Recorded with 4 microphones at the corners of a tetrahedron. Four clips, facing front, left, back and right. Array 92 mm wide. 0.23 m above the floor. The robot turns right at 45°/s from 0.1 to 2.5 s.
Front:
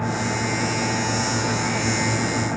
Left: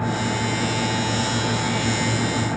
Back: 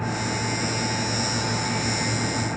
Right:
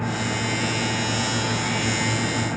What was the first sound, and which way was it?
Only background noise.